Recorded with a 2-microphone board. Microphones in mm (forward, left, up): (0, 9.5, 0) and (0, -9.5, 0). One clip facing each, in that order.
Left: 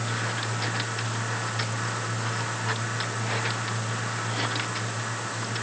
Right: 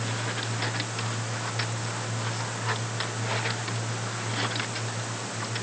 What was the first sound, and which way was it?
Only background noise.